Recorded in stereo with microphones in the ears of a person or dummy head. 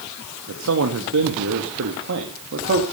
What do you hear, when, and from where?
0.5 s a man speaking: 85° right, 1.9 m; by 2.8 s 50° right (ahead or behind), 2.5 m